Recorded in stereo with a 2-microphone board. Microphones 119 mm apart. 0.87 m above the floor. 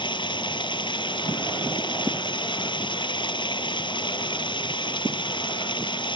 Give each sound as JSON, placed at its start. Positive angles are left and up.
{"t": 0.0, "sound": "running water", "side_deg": 40}